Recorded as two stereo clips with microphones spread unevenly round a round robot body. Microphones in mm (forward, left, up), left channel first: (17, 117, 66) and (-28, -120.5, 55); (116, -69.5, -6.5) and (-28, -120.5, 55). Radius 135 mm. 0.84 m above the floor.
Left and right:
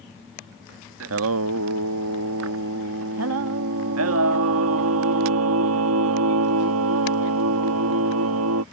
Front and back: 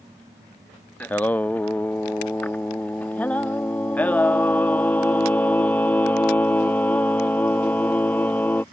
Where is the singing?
65° right.